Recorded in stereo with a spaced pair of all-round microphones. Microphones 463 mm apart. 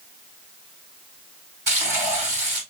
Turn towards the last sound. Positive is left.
turn(degrees=-80)